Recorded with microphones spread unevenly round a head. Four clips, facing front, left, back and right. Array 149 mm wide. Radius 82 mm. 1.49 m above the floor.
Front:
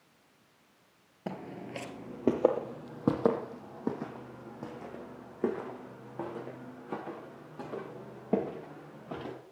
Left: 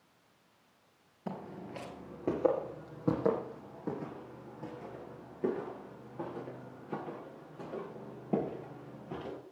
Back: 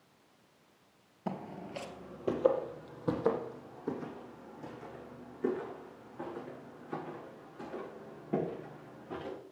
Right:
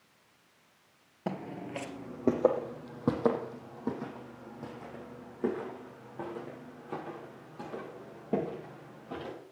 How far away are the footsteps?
About 1.9 m.